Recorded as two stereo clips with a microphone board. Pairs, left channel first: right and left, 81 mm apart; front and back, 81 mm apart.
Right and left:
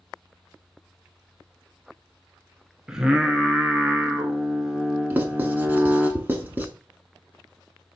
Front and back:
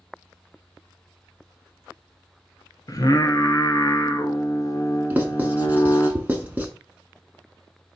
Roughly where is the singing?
Ahead.